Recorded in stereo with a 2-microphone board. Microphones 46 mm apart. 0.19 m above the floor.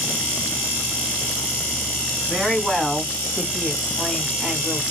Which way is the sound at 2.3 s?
5° right (ahead or behind).